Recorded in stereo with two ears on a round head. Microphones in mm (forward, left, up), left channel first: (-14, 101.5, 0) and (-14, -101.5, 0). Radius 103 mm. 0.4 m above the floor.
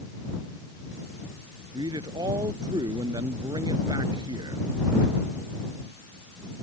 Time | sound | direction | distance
1.7 | a man speaking | 20° right (ahead or behind) | ?